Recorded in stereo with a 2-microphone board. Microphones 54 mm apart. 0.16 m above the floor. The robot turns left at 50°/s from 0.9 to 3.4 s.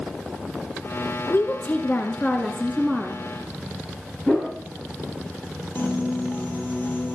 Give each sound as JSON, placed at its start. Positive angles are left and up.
{"t": 1.3, "sound": "a woman speaking", "azimuth_deg": 85, "distance_m": 1.7}
{"t": 4.3, "sound": "a whoosh", "side_deg": 25, "distance_m": 7.0}
{"t": 5.8, "sound": "a piano", "side_deg": 40, "distance_m": 2.5}